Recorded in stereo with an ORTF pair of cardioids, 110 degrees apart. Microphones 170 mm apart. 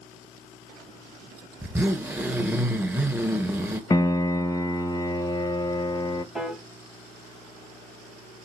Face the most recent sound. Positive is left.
turn(degrees=-5)